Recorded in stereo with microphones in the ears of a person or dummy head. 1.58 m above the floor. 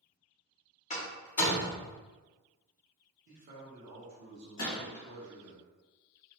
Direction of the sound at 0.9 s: 35° left (ahead or behind).